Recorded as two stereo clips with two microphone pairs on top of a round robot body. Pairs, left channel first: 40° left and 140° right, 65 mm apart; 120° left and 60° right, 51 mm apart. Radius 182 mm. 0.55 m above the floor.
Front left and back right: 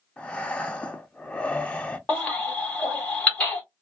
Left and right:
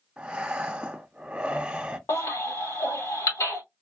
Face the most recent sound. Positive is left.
turn(degrees=110)